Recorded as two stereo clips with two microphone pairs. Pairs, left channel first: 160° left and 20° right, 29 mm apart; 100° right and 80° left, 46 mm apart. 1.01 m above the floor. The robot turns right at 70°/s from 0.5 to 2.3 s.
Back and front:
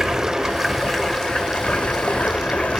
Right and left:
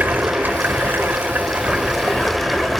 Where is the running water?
50° left, 1.0 m; by 2.8 s 175° left, 1.0 m.